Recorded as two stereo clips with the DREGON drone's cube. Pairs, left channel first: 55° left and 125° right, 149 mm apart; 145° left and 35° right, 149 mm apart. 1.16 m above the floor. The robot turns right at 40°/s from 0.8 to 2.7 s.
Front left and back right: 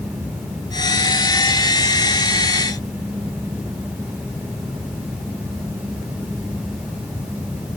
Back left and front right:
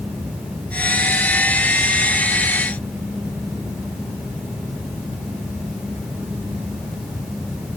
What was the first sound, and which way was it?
Only background noise.